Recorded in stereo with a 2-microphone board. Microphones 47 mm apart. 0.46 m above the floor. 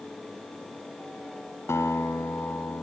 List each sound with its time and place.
1.7 s a guitar: 80° left, 1.5 m